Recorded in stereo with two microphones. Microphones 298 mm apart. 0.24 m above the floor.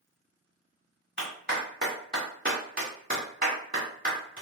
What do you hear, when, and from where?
1.2 s a clap: 30° right (ahead or behind), 1.7 m